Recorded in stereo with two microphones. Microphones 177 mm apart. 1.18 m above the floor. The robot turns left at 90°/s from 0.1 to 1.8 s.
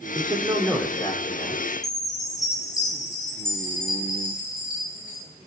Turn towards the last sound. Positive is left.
turn(degrees=20)  # may be behind; listen again after turning